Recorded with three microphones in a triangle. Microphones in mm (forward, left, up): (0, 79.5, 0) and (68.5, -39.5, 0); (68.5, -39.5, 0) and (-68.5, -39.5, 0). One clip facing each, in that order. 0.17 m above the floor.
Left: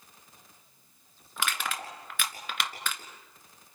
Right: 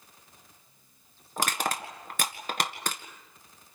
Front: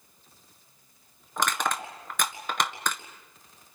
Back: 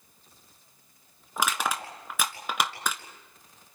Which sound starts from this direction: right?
Crushing, at 1.4 s.